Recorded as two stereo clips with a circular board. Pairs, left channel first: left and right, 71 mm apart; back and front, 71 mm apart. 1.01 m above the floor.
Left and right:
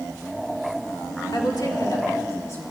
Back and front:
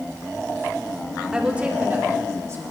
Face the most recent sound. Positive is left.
turn(degrees=40)